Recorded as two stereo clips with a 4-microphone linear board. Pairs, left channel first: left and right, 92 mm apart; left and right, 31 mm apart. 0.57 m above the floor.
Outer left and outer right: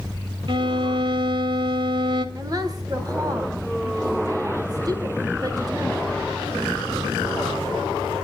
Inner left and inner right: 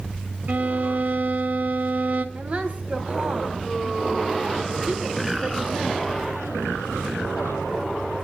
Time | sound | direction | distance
0.5 | a violin | 60° right (ahead or behind) | 2.5 m
2.4 | a woman speaking | 45° right (ahead or behind) | 3 m